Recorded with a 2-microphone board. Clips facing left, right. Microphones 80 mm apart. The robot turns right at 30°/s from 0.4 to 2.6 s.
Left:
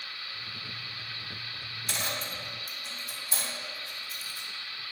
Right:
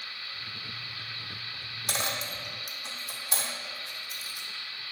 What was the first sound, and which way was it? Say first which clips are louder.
A dropped coin: right 2 dB; 80° right.